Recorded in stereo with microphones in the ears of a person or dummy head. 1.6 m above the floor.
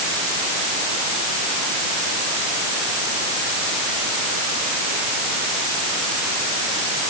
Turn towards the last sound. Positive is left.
No sound to turn to.